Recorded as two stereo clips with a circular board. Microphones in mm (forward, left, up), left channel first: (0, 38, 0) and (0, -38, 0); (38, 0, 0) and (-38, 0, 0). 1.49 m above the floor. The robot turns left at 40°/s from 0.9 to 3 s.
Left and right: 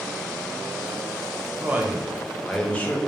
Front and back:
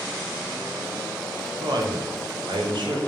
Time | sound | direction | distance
1.6 | a man speaking | 150° right | 0.8 m